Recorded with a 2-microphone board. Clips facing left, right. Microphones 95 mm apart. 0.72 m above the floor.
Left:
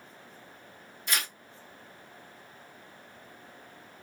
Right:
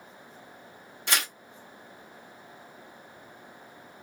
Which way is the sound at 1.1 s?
75° right (ahead or behind).